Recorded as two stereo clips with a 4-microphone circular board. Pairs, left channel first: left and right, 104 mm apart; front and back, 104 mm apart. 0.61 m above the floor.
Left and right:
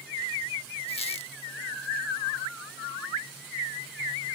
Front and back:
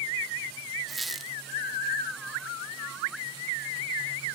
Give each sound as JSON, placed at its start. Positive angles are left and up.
{"t": 0.9, "sound": "a squeak", "azimuth_deg": 90}